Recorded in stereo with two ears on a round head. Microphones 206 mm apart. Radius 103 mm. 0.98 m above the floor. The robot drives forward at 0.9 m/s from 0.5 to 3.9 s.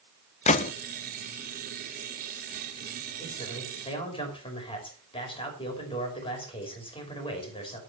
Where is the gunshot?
30° left (ahead or behind), 0.7 m; by 0.7 s 35° left (ahead or behind), 0.5 m.